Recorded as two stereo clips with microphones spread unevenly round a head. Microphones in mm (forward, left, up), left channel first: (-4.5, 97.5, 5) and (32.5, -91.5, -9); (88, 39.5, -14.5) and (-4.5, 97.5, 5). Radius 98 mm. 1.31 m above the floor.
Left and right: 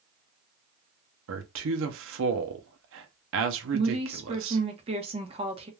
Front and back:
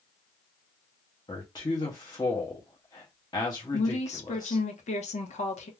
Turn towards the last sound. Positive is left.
turn(degrees=-15)